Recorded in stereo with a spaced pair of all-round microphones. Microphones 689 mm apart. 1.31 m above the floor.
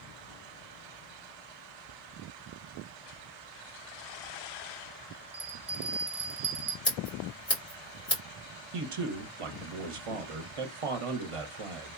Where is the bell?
30° right (ahead or behind), 0.7 m.